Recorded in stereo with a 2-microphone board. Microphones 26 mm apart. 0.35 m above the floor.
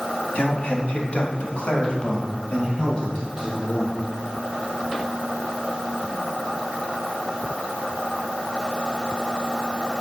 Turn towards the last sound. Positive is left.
turn(degrees=10)  # may be behind; listen again after turning